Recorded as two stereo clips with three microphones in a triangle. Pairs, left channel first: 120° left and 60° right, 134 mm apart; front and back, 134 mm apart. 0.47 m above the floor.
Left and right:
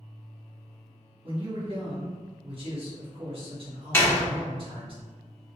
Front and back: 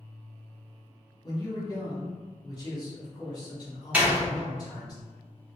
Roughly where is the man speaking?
Ahead right.